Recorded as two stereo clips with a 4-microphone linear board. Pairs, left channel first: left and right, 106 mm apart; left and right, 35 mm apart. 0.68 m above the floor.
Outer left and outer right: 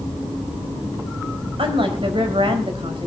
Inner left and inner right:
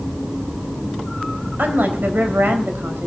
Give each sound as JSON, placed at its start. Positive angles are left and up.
{"t": 1.6, "sound": "a woman speaking", "side_deg": -55, "distance_m": 4.0}